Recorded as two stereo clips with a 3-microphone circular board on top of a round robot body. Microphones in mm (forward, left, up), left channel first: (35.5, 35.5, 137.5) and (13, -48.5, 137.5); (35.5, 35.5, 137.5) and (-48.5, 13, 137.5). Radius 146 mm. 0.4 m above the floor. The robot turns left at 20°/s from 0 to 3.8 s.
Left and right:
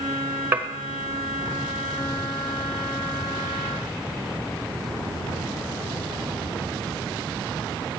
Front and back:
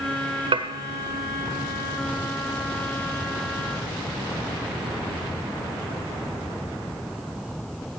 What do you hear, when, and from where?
0.5 s dishes clattering: 175° right, 1.2 m; by 0.7 s straight behind, 1.2 m